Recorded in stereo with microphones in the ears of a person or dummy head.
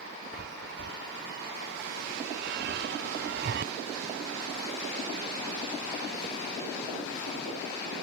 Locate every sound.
0.3 s a chime: 55° right (ahead or behind)